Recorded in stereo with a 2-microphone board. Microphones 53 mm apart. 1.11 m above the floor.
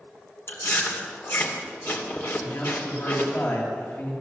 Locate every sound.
0.5 s chewing: 50° left (ahead or behind), 2.5 m
2.4 s a man speaking: 55° left (ahead or behind), 7 m